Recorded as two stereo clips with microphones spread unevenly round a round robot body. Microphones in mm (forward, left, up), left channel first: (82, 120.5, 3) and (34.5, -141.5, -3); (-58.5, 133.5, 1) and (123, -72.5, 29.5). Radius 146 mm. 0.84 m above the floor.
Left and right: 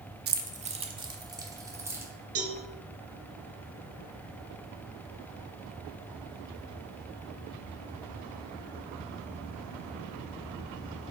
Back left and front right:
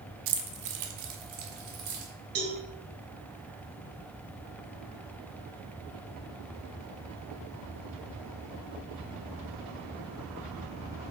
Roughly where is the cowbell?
Ahead right.